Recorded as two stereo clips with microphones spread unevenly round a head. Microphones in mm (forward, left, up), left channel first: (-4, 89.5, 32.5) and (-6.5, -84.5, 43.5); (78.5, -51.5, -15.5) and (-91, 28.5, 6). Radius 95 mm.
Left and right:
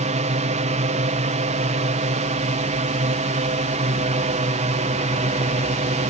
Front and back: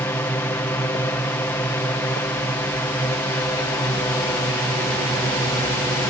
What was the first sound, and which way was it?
A drone, 90° right.